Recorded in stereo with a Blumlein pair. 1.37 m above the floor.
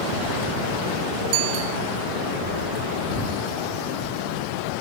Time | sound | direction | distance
1.3 | a bicycle bell | 45° right | ?